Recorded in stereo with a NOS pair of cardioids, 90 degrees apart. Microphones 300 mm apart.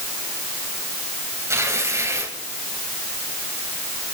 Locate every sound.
1.5 s tearing paper: 10° right, 4 m